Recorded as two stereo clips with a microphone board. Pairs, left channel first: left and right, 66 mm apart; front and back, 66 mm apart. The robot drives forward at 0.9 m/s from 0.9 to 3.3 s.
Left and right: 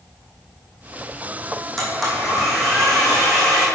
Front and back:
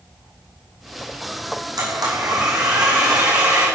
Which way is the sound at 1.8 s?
175° left.